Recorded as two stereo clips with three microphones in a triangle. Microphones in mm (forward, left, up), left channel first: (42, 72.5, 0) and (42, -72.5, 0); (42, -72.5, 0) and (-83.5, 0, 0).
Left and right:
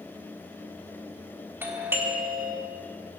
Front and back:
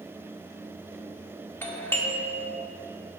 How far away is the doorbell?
About 1.1 m.